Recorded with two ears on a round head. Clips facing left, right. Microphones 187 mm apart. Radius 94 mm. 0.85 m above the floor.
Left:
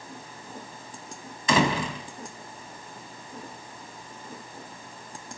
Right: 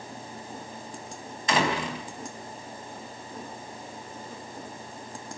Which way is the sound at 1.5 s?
80° left.